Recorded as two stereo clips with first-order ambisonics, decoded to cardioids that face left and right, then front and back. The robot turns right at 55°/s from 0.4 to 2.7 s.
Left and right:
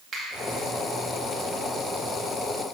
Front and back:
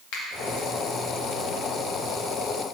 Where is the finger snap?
20° right, 1.9 m.